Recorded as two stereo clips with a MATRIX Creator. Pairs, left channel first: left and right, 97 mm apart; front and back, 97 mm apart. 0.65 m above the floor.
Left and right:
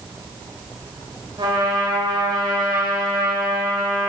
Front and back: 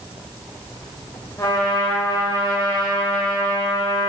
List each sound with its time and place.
1.4 s a trumpet: 50° right, 1.4 m